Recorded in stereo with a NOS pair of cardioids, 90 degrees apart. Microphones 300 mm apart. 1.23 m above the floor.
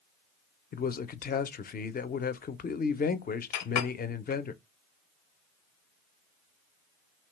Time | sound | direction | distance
0.7 | a man speaking | 30° left | 0.5 m
3.5 | a clink | 70° left | 0.5 m